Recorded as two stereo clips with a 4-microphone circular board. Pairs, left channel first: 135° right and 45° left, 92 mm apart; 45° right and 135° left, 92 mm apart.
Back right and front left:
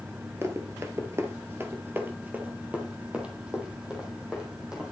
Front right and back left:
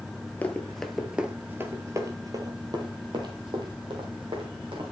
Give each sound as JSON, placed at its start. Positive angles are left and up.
{"t": 0.4, "sound": "running footsteps", "azimuth_deg": 15, "distance_m": 1.3}